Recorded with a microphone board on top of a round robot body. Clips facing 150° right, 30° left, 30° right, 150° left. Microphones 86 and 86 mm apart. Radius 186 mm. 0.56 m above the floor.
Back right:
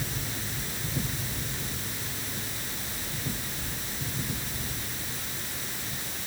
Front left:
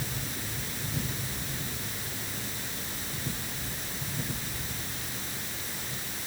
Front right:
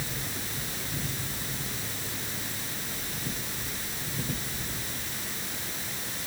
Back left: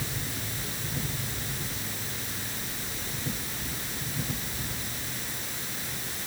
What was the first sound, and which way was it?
Only background noise.